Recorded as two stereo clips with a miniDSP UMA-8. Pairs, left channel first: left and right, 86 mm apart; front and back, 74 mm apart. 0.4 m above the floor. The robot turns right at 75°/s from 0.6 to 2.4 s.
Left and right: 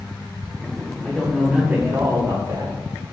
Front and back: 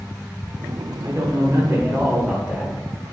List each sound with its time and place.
1.0 s a man speaking: 175° left, 1.6 m; by 2.7 s 85° right, 1.6 m